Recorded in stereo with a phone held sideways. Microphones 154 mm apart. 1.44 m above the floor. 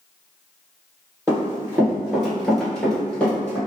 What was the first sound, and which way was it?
Running footsteps, 20° right (ahead or behind).